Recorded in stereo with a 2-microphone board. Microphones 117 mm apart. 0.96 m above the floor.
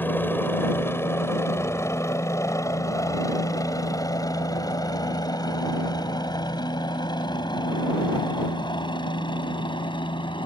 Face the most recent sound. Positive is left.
turn(degrees=40)  # may be behind; listen again after turning